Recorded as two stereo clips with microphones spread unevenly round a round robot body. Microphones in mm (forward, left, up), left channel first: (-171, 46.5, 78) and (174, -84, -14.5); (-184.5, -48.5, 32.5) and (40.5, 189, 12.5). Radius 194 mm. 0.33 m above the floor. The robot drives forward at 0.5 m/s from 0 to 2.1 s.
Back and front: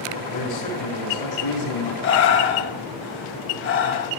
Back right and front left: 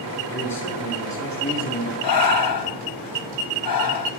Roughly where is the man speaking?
Behind.